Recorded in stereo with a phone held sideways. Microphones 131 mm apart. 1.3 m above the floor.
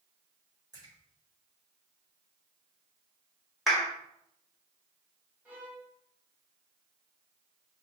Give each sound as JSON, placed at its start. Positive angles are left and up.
{"t": 0.7, "sound": "a splash", "side_deg": -30, "distance_m": 4.0}
{"t": 3.7, "sound": "a clap", "side_deg": 0, "distance_m": 3.0}
{"t": 5.5, "sound": "a violin", "side_deg": -15, "distance_m": 2.5}